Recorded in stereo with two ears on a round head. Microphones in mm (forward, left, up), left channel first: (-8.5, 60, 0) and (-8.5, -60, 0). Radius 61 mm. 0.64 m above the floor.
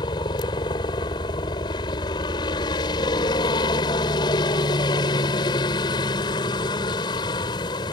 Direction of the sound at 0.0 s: 30° left (ahead or behind).